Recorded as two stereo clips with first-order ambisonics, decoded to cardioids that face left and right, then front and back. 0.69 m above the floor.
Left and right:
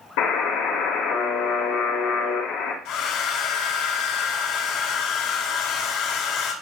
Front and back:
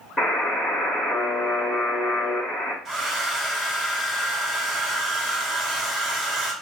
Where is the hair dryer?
90° left, 2.0 m.